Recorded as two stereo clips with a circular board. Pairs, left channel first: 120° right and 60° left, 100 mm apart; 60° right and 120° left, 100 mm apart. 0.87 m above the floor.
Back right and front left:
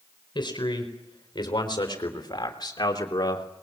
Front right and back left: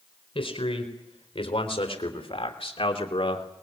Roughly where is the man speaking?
Right.